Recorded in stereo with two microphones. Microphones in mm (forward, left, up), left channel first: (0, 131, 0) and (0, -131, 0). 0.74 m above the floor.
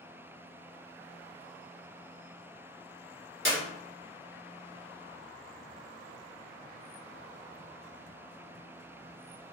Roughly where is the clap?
Right.